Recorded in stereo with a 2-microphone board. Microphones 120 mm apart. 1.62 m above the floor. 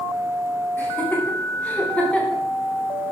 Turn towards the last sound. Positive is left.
turn(degrees=10)  # may be behind; listen again after turning